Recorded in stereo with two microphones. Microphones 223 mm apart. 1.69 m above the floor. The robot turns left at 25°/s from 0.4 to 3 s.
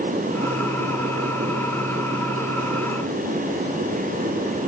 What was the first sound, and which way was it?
Only background noise.